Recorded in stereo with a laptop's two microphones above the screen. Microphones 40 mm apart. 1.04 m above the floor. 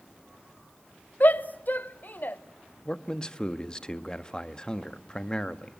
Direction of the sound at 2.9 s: 25° left (ahead or behind).